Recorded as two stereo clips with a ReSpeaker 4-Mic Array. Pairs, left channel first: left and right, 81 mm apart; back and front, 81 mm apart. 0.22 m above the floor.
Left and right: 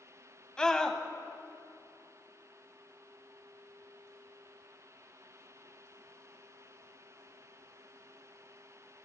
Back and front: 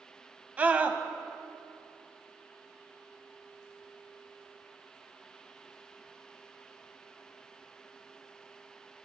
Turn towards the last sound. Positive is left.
turn(degrees=30)